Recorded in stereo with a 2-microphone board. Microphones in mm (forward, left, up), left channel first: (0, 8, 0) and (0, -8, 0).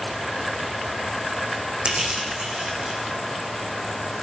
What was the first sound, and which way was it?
Crushing, 80° right.